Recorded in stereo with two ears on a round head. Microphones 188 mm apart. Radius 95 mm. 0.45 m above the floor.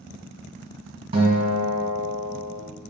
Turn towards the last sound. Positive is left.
turn(degrees=-25)  # may be behind; listen again after turning